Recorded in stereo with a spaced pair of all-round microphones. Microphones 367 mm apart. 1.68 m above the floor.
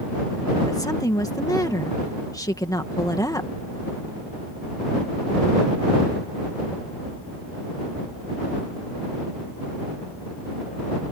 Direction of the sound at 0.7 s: 10° left (ahead or behind).